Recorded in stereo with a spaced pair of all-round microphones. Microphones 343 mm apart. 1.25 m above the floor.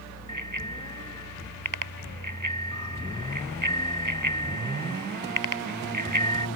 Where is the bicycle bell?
65° right (ahead or behind).